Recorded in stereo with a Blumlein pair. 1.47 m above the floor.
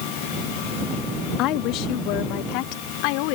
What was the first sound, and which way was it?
A woman speaking, 40° left.